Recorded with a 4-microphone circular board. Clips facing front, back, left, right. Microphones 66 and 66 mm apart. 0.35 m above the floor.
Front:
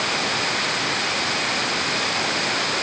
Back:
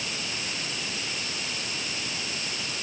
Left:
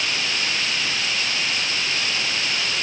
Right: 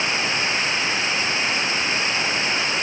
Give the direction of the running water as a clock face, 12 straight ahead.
1 o'clock.